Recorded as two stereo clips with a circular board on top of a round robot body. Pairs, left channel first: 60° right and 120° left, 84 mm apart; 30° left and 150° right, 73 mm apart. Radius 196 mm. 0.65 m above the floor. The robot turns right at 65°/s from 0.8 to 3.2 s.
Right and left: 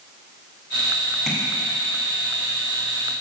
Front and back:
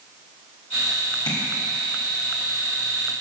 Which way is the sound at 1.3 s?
35° left.